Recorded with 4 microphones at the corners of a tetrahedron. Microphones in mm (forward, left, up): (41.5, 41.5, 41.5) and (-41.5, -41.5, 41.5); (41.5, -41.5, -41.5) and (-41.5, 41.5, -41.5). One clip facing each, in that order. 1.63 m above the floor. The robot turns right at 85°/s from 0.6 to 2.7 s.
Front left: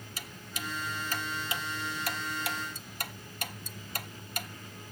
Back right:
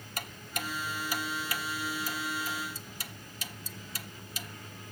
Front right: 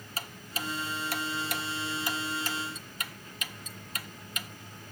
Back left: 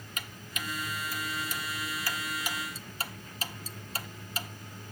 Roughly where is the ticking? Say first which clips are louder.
Back right 4 dB, front right 3 dB; right.